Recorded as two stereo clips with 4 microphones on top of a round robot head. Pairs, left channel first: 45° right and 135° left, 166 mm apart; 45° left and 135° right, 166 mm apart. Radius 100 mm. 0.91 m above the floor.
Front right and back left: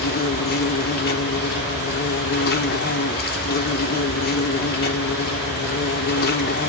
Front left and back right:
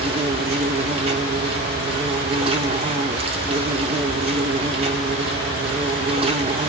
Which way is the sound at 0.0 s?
75° right.